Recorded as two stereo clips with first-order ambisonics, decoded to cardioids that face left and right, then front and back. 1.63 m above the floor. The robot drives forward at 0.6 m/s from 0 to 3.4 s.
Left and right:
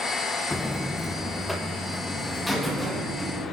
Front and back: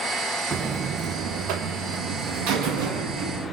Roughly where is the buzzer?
Behind left.